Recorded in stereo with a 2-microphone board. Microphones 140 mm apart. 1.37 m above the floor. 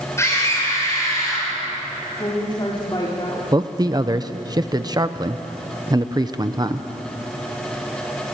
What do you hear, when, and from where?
0.2 s a scream: 20° left (ahead or behind), 5.5 m; by 1.5 s 25° left (ahead or behind), 4.5 m
2.2 s a woman speaking: 35° left (ahead or behind), 3.5 m
3.5 s a man speaking: 30° right (ahead or behind), 0.9 m